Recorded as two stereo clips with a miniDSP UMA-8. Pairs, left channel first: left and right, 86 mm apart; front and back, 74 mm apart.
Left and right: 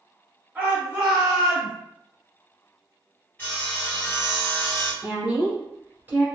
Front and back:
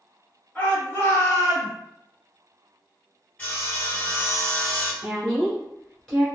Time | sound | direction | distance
0.6 | a shout | 45° right | 1.1 m
3.4 | sawing | 40° left | 1.8 m
5.0 | a woman speaking | 75° right | 1.4 m